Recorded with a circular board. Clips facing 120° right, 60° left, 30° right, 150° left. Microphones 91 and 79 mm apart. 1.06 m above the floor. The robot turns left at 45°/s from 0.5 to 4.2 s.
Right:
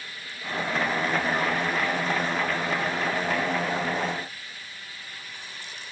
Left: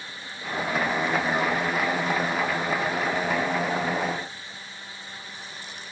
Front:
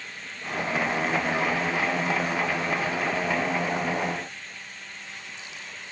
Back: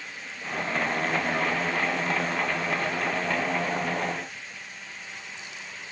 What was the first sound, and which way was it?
Only background noise.